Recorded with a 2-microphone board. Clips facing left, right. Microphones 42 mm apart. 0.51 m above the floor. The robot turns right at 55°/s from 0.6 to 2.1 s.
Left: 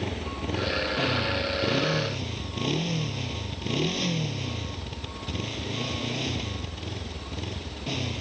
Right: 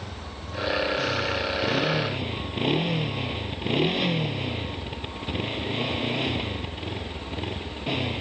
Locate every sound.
0.0 s a motorcycle: 120° left; by 8.2 s 160° right